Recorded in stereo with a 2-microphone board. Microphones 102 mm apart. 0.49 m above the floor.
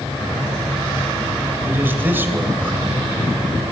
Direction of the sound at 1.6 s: 20° right (ahead or behind).